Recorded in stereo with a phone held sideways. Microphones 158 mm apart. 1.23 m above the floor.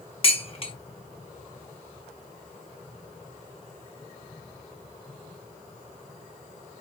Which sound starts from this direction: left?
Dishes clattering, at 0.2 s.